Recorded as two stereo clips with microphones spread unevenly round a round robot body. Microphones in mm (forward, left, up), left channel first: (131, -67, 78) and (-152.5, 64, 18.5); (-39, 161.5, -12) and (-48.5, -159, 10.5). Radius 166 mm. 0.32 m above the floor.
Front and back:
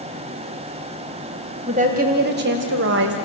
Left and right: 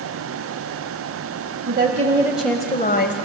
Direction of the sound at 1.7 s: 150° right.